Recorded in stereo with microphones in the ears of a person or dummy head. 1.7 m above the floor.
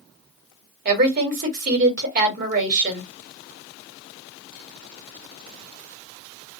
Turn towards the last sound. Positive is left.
turn(degrees=-50)  # may be behind; listen again after turning